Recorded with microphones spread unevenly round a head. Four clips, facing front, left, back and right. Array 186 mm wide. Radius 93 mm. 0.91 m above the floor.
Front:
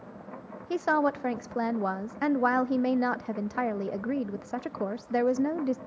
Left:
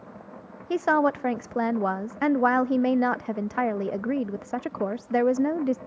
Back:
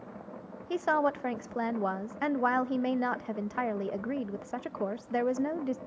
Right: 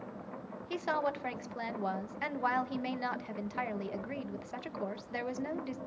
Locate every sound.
0.7 s a woman speaking: 70° left, 0.7 m